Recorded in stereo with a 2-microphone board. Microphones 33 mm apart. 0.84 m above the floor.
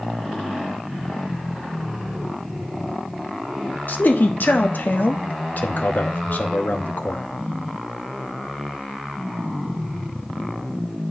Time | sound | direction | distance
3.9 | a man speaking | 65° left (ahead or behind) | 0.8 m